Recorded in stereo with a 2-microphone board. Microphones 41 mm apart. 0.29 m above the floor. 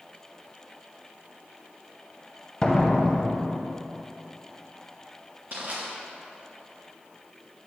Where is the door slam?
15° left (ahead or behind), 0.8 m.